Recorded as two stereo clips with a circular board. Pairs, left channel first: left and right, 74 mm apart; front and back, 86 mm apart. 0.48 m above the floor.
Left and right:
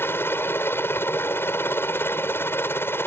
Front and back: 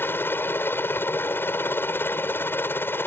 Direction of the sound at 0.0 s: 50° left.